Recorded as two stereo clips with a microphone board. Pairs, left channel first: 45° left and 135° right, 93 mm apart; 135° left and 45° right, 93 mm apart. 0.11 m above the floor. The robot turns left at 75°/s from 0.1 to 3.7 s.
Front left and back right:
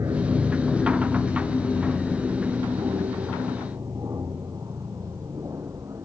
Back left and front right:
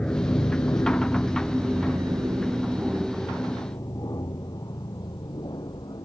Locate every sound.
0.0 s an aircraft: 155° right; by 6.0 s 170° left